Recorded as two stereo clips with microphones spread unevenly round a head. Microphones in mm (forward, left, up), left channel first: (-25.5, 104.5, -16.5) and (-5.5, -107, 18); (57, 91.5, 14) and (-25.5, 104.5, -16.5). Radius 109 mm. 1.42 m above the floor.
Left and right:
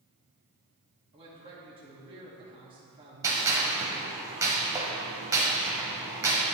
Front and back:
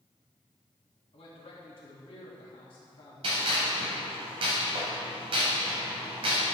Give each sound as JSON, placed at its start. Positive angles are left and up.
{"t": 1.1, "sound": "a man speaking", "azimuth_deg": -15, "distance_m": 2.0}
{"t": 3.2, "sound": "a gunshot", "azimuth_deg": -150, "distance_m": 1.8}